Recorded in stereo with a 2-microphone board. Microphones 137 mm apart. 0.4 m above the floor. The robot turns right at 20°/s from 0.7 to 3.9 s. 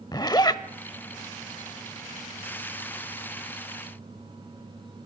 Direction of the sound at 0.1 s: 30° left (ahead or behind).